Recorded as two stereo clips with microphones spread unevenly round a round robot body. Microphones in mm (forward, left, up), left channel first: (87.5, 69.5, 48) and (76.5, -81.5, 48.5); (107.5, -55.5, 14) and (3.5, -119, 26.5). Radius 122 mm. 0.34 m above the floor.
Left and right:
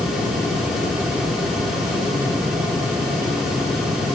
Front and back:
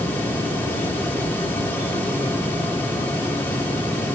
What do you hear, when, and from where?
Only background noise.